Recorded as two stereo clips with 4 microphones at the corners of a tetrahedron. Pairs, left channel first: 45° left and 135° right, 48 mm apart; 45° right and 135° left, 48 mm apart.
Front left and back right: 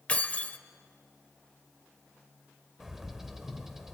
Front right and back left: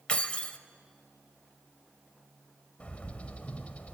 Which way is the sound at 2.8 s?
60° right.